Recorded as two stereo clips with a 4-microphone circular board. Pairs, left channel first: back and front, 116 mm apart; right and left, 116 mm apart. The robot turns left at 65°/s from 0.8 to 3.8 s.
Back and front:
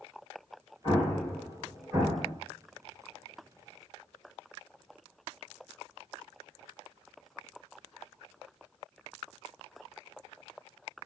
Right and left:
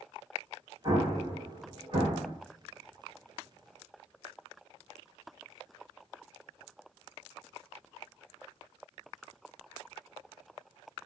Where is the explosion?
140° left, 2 m; by 2.3 s 45° left, 2 m.